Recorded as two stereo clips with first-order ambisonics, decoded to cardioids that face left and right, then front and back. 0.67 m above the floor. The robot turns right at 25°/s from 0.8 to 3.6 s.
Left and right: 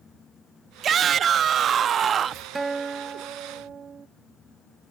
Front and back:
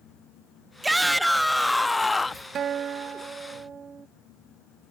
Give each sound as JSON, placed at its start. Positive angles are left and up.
{"t": 0.8, "sound": "a shout", "azimuth_deg": -100}
{"t": 2.5, "sound": "a guitar", "azimuth_deg": -155}